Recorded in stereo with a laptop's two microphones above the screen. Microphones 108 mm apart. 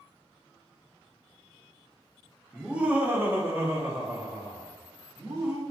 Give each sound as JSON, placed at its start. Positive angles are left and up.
{"t": 2.5, "sound": "laughter", "side_deg": -5, "distance_m": 0.7}